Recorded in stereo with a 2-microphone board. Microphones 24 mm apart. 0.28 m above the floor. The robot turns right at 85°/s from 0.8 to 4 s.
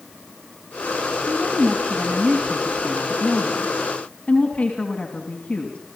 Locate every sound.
1.3 s a woman speaking: 130° right, 2.5 m; by 5.8 s 100° left, 2.5 m